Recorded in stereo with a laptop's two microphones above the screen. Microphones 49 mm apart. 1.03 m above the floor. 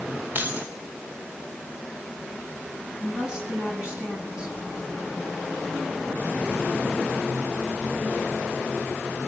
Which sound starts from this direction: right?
Keys jangling, at 0.3 s.